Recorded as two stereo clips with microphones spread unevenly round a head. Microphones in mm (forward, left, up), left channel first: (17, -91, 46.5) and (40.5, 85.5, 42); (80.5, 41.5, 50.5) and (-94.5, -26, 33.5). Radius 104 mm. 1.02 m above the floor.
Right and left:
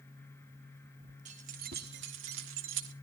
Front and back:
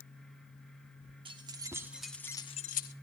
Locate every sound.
1.2 s keys jangling: 135° left, 2 m; by 2.9 s 60° left, 1.3 m